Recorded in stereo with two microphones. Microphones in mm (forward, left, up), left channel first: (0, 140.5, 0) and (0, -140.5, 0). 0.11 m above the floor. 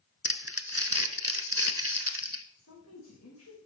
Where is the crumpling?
55° right (ahead or behind), 0.8 m.